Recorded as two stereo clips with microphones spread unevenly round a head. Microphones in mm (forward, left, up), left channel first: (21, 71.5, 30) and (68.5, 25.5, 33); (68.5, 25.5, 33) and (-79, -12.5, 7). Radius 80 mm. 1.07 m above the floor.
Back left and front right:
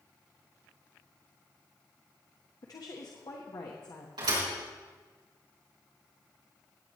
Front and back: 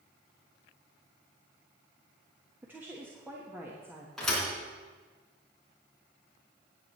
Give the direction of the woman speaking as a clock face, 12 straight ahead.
8 o'clock.